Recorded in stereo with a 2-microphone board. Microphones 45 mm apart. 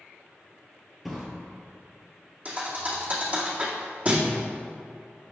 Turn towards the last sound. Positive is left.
turn(degrees=-35)  # may be behind; listen again after turning